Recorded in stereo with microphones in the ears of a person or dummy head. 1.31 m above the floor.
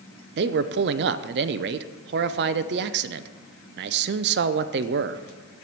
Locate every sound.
0.4 s a man speaking: 55° right (ahead or behind), 0.5 m